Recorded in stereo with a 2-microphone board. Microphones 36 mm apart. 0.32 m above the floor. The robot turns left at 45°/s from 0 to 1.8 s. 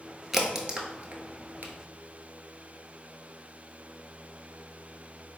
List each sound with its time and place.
0.3 s a crack: 5° right (ahead or behind), 0.7 m; by 1.7 s 65° right (ahead or behind), 0.7 m